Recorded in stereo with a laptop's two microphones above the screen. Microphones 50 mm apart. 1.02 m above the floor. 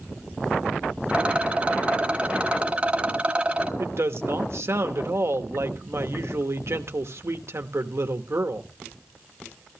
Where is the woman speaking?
60° right (ahead or behind), 1.1 m.